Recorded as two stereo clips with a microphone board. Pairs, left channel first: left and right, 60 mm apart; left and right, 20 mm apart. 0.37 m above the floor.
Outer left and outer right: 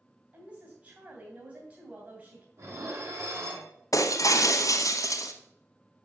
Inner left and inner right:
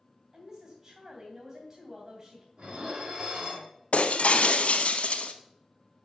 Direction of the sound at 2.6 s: 55° right (ahead or behind).